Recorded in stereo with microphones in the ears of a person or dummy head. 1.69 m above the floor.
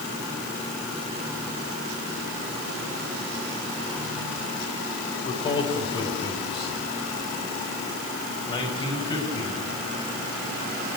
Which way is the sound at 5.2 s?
30° left (ahead or behind).